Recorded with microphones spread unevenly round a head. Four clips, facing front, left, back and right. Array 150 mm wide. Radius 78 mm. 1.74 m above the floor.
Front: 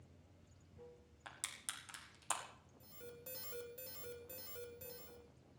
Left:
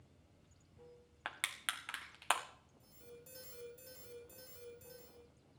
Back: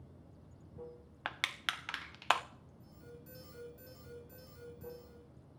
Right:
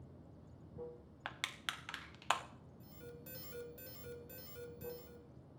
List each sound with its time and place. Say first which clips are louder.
0.0 s running water: right 10 dB, back 8 dB; 130° right, 0.9 m
1.2 s crushing: left 2 dB, back 14 dB; 155° left, 0.7 m
2.8 s an alarm: right 4 dB, even; 25° right, 4 m